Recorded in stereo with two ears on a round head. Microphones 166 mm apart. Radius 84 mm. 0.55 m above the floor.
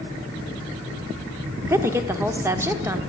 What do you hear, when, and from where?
1.6 s a woman speaking: 15° right (ahead or behind), 1.0 m